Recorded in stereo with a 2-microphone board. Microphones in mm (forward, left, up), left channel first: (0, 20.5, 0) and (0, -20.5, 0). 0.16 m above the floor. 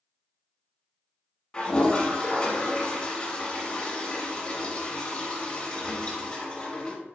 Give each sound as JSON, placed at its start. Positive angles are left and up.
{"t": 1.5, "sound": "a toilet flushing", "side_deg": 25, "distance_m": 1.7}